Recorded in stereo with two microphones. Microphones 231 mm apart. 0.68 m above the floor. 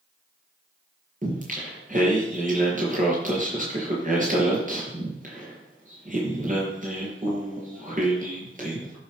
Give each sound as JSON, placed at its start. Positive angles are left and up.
{"t": 1.2, "sound": "singing", "side_deg": -35, "distance_m": 6.0}